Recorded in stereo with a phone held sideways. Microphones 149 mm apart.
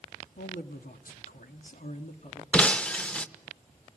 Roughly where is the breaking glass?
Centre.